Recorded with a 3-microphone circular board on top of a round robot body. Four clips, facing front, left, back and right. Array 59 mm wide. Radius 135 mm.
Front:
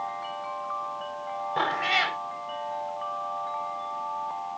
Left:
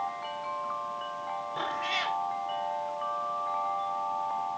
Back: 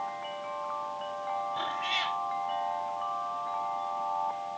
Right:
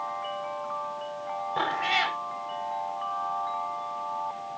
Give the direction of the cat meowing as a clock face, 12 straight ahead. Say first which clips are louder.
Right 6 dB, front 6 dB; 1 o'clock.